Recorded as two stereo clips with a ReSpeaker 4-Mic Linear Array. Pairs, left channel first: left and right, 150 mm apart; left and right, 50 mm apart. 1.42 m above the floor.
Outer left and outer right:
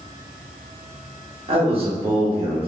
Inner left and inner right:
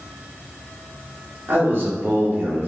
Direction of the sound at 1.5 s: 40° right (ahead or behind).